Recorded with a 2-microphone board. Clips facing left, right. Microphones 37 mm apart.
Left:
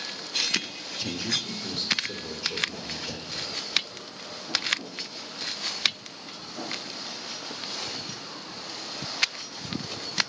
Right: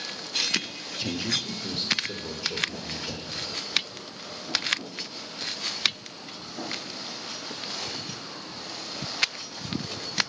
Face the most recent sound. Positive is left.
turn(degrees=-5)  # may be behind; listen again after turning